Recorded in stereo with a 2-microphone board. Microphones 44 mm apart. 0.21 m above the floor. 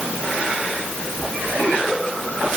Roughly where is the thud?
I don't hear a thud.